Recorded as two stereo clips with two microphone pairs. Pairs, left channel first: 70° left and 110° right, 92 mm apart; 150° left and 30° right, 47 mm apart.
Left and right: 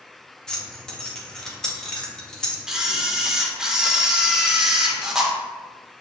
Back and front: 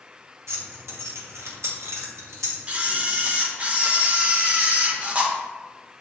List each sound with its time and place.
0.5 s keys jangling: 20° right, 0.9 m
2.7 s a camera shutter: 45° right, 0.7 m